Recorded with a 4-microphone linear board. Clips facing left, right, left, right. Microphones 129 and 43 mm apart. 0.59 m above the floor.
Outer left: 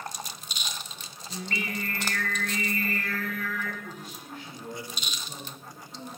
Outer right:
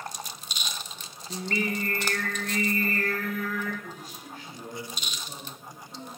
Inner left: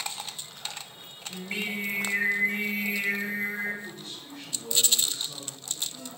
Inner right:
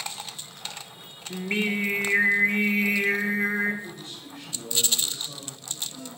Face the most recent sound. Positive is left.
turn(degrees=-40)  # may be behind; listen again after turning